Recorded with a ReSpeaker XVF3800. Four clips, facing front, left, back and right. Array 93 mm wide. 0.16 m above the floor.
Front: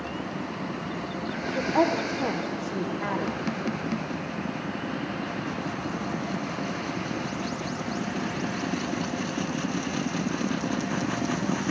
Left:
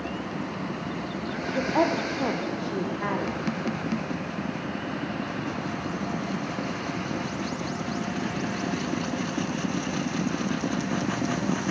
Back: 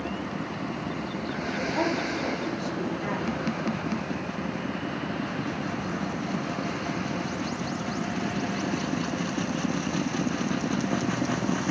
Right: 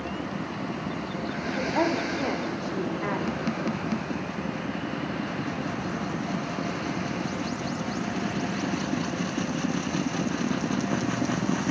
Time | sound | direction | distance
1.6 | a woman speaking | 55° left | 6.5 m